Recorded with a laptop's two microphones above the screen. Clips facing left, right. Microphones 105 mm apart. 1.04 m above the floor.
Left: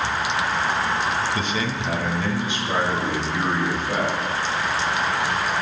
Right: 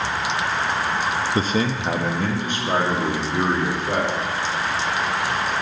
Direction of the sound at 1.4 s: 35° right (ahead or behind).